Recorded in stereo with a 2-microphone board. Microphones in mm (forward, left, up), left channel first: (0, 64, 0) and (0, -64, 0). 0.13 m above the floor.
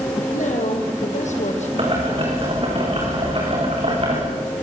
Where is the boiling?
45° right (ahead or behind), 7 m.